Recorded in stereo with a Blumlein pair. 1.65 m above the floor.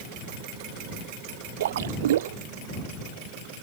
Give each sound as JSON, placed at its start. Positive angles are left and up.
{"t": 1.6, "sound": "a splash", "azimuth_deg": -60}